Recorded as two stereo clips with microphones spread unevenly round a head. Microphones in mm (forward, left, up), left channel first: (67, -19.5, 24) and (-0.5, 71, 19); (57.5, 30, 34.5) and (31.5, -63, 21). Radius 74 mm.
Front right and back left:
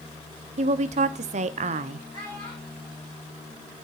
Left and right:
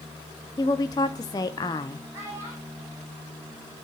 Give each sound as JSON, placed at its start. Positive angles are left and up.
{"t": 0.6, "sound": "a woman speaking", "azimuth_deg": 135, "distance_m": 0.5}
{"t": 2.1, "sound": "a child speaking", "azimuth_deg": -175, "distance_m": 3.5}